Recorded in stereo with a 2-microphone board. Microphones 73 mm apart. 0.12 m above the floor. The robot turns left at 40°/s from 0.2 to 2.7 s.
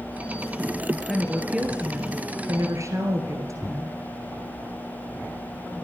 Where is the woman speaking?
Straight ahead, 1.8 m; by 4.0 s 65° right, 1.8 m.